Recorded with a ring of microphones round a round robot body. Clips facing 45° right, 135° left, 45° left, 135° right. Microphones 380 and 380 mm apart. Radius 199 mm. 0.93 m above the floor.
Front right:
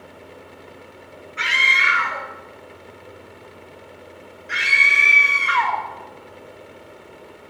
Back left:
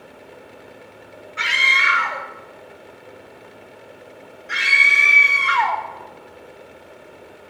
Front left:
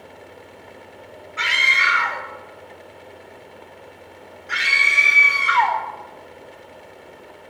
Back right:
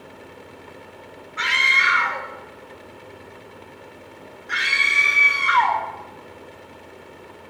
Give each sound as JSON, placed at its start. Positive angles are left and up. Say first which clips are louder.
{"t": 1.4, "sound": "a scream", "louder": "even, even", "azimuth_deg": 95, "distance_m": 1.3}